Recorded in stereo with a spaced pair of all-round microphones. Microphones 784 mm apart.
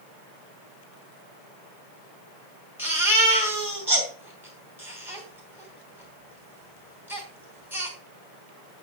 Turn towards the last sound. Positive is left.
turn(degrees=0)  # may be behind; listen again after turning